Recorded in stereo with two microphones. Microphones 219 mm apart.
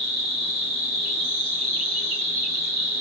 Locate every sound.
0.0 s an insect: 10° right (ahead or behind), 1.1 m